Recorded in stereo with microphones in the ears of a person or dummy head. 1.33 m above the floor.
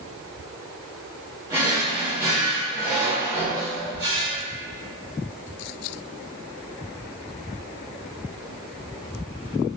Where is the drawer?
10° right (ahead or behind), 0.9 m.